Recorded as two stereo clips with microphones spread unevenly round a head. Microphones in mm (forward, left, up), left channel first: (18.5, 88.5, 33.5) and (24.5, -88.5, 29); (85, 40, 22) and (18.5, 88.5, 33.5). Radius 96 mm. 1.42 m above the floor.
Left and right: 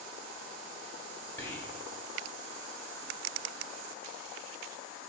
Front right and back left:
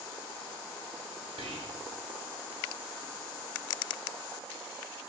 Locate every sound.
1.4 s whispering: 170° left, 1.3 m